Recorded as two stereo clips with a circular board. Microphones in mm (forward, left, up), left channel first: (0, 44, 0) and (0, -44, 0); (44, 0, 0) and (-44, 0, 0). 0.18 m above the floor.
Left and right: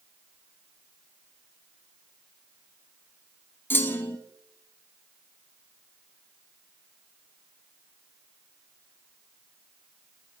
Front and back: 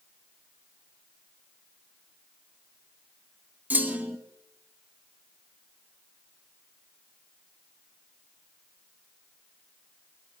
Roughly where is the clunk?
Behind left.